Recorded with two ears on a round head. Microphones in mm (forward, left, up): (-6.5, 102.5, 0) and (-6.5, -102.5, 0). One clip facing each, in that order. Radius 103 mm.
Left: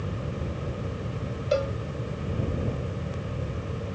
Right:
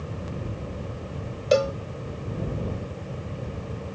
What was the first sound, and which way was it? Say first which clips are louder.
A cowbell: right 5 dB; 70° right (ahead or behind).